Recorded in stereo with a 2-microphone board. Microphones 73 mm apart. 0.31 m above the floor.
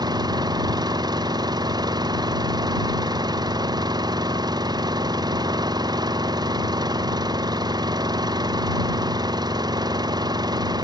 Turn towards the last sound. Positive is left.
turn(degrees=-65)  # may be behind; listen again after turning